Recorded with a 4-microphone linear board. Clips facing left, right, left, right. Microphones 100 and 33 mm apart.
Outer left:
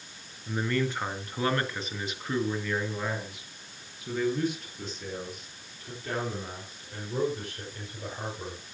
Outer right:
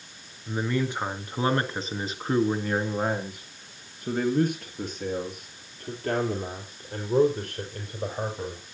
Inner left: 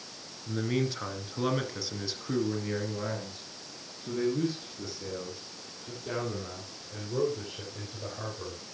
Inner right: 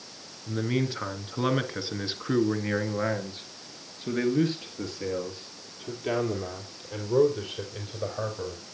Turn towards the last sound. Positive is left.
turn(degrees=-55)  # may be behind; listen again after turning